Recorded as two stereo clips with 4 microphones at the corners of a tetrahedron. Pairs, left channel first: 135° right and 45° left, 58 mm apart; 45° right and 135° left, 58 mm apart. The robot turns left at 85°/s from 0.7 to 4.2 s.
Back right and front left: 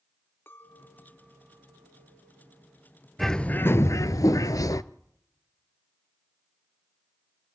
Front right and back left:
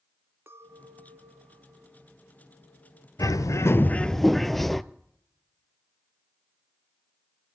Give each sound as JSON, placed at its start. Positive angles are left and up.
{"t": 0.5, "sound": "a clink", "azimuth_deg": 175, "distance_m": 1.6}
{"t": 3.2, "sound": "a bird", "azimuth_deg": -45, "distance_m": 0.7}